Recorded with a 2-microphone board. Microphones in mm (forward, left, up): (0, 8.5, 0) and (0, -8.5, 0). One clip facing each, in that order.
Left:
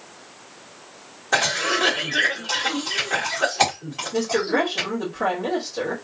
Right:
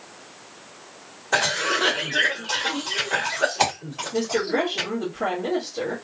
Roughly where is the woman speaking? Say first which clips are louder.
Left 2 dB; left.